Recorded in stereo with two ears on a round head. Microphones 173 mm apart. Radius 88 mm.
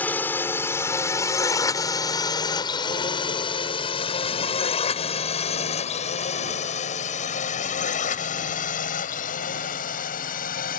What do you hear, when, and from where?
0.0 s a drone: 10° left (ahead or behind); by 10.8 s 50° left (ahead or behind)